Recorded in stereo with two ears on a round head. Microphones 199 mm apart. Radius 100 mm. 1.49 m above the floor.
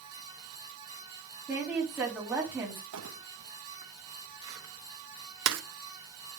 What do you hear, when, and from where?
1.5 s a woman speaking: 10° right (ahead or behind), 4 m
2.9 s crumpling: 80° right, 1.2 m